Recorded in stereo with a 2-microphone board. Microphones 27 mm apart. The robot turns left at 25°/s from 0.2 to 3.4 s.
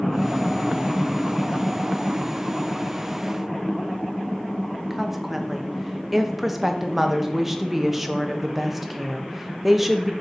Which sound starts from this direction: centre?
A woman speaking, at 4.9 s.